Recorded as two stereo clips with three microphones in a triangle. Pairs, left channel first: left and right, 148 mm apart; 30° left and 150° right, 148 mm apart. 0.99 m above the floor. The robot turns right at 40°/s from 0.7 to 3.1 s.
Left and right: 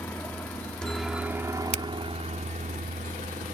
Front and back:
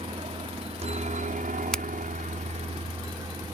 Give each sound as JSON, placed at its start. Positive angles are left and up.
{"t": 0.0, "sound": "a helicopter", "azimuth_deg": 170}
{"t": 1.7, "sound": "a finger snap", "azimuth_deg": -55}